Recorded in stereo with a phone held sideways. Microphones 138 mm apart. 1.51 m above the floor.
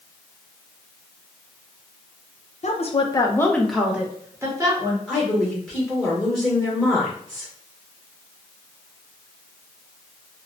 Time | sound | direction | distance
2.6 | a woman speaking | 55° left (ahead or behind) | 0.6 m
5.1 | a woman speaking | 5° left (ahead or behind) | 1.0 m